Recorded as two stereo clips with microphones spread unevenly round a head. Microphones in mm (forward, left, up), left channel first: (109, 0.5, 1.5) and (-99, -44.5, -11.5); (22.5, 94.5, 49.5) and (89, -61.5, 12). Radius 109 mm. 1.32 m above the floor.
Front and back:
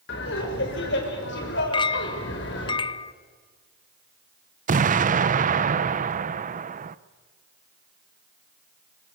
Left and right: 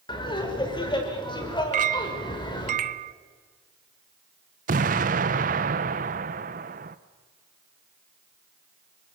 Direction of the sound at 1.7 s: 40° right.